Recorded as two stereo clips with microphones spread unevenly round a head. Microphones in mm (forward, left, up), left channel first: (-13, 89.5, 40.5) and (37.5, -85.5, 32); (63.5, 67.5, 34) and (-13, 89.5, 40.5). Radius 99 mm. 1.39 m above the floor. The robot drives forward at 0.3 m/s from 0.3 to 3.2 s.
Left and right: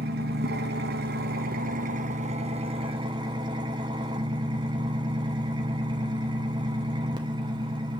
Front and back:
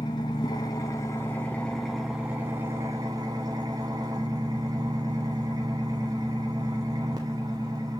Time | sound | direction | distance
0.0 | an engine running | 55° right | 0.8 m